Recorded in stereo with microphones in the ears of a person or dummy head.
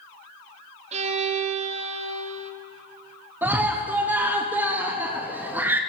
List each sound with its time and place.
0.9 s a violin: 30° right (ahead or behind), 0.9 m
3.4 s a scream: 5° right (ahead or behind), 0.6 m